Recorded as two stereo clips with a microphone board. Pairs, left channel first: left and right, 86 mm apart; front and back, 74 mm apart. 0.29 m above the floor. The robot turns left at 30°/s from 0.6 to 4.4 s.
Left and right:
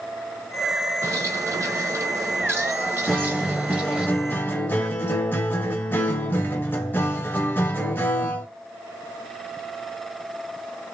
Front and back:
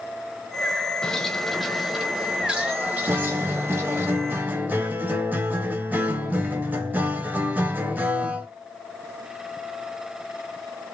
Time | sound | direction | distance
1.0 | a bird | 70° right | 0.8 m
3.1 | a guitar | 175° left | 0.7 m